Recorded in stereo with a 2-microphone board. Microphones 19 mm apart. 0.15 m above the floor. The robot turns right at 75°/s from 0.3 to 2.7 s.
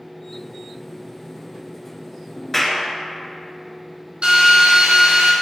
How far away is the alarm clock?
I don't hear an alarm clock.